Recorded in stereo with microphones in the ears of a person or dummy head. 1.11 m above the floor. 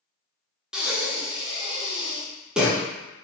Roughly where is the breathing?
Centre.